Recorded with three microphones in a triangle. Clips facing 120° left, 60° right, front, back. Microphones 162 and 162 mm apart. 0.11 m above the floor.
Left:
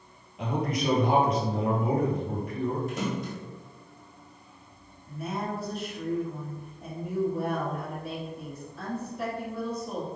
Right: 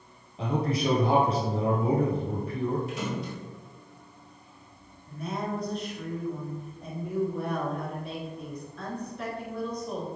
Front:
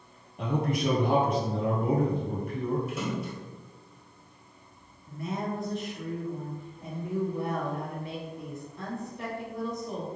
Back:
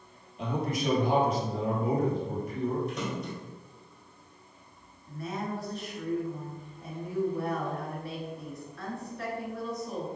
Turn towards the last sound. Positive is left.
turn(degrees=45)